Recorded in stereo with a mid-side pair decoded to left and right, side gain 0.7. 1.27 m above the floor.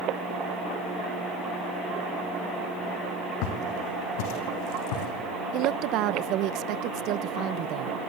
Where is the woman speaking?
60° right, 0.9 m.